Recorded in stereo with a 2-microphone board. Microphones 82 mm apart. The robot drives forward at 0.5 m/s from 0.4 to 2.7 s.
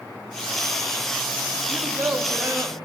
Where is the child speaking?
30° right (ahead or behind), 0.8 m.